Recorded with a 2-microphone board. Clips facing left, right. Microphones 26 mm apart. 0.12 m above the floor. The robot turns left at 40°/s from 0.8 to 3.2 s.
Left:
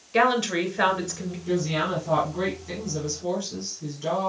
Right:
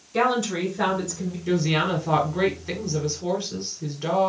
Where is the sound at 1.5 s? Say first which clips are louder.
Right 3 dB; 70° right, 1.9 m; by 4.3 s 135° right, 1.9 m.